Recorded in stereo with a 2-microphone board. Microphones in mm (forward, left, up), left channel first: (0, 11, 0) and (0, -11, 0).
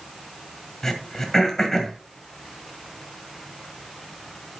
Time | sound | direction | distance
0.8 | throat clearing | 20° left (ahead or behind) | 1.9 m